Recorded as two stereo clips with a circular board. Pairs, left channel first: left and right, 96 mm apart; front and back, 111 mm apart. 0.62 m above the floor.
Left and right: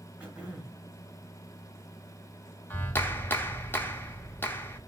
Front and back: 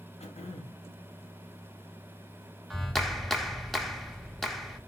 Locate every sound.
0.2 s throat clearing: 15° right, 1.0 m
2.7 s a clap: 85° left, 0.5 m